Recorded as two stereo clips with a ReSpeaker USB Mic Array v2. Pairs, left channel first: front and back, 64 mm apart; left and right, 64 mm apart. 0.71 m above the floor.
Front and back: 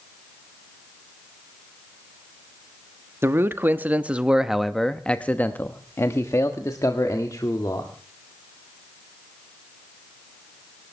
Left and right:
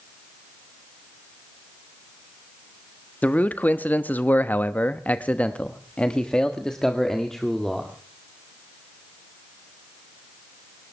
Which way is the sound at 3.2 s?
145° left.